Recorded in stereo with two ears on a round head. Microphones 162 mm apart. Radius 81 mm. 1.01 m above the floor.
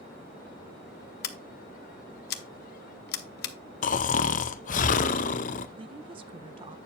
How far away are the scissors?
About 0.9 m.